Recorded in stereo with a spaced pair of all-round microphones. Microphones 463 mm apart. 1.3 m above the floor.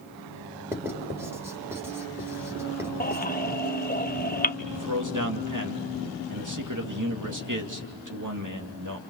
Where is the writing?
5° right (ahead or behind), 4 m.